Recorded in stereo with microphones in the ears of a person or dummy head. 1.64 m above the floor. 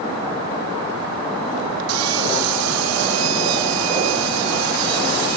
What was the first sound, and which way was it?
Sawing, 90° right.